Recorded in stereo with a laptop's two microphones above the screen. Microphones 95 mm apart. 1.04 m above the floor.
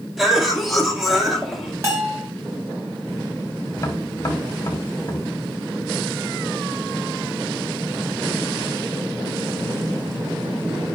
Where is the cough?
Centre (ahead or behind), 2.5 m.